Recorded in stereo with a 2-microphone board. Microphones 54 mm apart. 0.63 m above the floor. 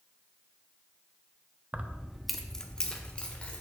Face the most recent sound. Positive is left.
turn(degrees=25)  # may be behind; listen again after turning